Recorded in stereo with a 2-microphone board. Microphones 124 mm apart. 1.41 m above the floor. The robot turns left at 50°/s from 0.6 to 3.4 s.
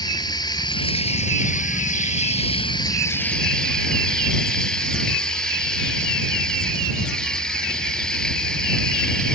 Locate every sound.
0.0 s running water: 145° left; by 9.4 s 5° left